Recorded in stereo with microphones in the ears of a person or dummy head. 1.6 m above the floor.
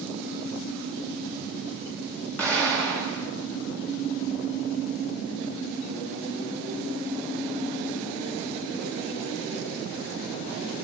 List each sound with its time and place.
2.4 s an explosion: 10° left (ahead or behind), 9.5 m